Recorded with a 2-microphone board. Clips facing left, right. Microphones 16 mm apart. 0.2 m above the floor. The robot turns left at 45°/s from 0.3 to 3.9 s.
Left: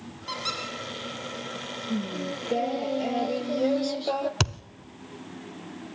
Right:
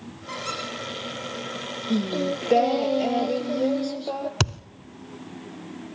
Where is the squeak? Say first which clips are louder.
Even; 45° left (ahead or behind), 5 m; by 0.6 s 35° left (ahead or behind), 5 m.